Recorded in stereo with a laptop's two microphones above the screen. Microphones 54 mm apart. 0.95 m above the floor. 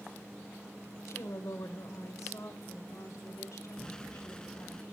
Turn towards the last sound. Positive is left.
turn(degrees=15)  # may be behind; listen again after turning